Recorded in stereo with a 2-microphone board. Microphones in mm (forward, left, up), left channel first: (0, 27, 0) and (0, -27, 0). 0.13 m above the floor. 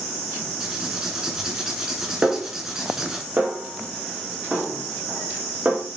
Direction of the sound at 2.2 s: 25° right (ahead or behind).